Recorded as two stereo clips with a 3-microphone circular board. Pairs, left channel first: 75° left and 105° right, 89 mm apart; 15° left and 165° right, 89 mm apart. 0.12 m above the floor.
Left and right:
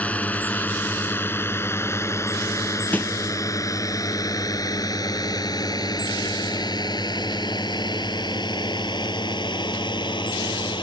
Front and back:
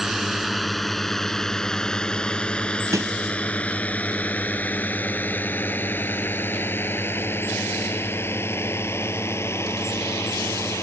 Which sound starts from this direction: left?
A drone, at 0.0 s.